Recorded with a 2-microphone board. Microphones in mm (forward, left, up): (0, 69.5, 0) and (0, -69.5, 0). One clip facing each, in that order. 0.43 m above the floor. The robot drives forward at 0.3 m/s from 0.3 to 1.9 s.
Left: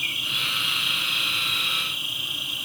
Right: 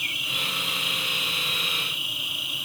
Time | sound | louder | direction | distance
0.0 | an insect | right 1 dB | 50° left (ahead or behind) | 3 m